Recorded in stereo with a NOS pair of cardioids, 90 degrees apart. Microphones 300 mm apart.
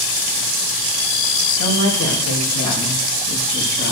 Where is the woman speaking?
65° left, 4 m; by 3.9 s 45° left, 4 m.